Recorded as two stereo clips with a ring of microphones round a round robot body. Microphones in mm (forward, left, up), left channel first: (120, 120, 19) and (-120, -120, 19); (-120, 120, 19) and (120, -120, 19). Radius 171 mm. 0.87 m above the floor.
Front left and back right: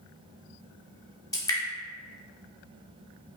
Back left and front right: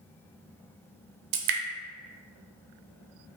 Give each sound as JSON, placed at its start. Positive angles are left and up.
{"t": 1.3, "sound": "dripping", "azimuth_deg": -35, "distance_m": 0.6}